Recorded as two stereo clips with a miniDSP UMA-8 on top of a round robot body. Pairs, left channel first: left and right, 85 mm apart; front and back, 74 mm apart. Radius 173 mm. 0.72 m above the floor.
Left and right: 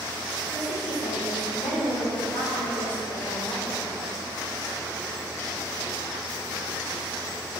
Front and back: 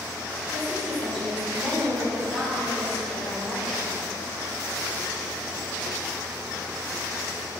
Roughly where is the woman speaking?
Left.